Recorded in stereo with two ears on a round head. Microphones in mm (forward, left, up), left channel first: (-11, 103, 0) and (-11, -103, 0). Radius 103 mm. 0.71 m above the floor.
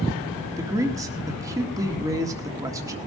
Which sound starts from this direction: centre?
A man speaking, at 0.6 s.